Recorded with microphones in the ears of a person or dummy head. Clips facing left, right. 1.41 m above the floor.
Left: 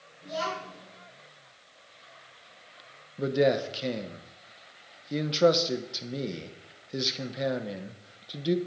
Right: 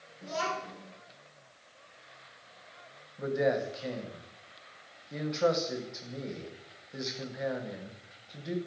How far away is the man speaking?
About 1.0 m.